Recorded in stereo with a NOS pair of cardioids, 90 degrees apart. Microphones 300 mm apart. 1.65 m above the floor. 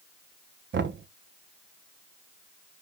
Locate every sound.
0.7 s knocking: 40° right, 1.3 m